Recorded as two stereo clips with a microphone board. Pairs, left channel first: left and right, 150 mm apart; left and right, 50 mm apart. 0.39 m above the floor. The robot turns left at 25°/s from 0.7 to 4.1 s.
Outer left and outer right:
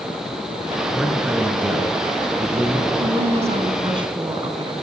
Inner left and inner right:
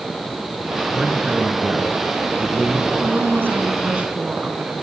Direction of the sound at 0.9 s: Straight ahead.